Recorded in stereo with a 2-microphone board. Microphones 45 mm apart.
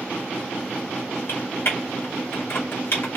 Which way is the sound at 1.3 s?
55° left (ahead or behind).